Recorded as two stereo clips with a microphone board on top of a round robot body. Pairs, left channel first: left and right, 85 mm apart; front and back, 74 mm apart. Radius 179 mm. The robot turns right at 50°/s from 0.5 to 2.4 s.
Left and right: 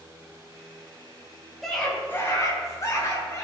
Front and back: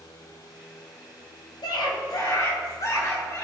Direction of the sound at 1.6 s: Straight ahead.